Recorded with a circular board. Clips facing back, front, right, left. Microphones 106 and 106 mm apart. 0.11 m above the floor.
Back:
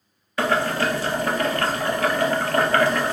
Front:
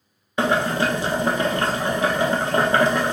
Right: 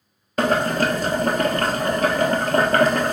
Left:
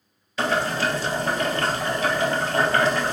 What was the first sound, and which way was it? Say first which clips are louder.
Boiling: front 1 dB, right 4 dB; 65° right.